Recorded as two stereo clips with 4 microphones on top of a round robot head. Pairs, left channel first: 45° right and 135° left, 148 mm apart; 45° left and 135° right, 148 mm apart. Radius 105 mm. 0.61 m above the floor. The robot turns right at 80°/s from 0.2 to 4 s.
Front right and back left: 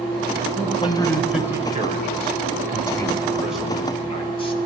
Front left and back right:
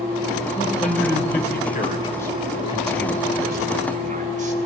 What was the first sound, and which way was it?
A man speaking, 15° right.